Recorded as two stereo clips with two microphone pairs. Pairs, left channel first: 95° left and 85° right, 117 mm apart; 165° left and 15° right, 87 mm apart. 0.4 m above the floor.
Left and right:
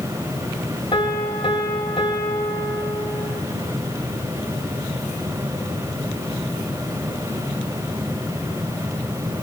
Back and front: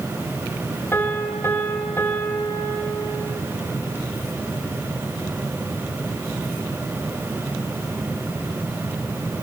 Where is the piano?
105° left, 1.6 m.